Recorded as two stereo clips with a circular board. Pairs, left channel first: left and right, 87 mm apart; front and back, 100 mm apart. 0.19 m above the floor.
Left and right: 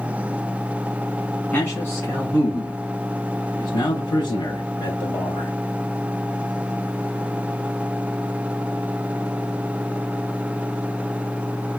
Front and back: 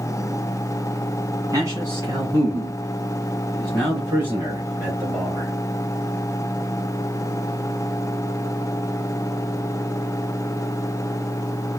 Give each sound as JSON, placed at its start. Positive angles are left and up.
{"t": 1.5, "sound": "a man speaking", "azimuth_deg": 145, "distance_m": 2.0}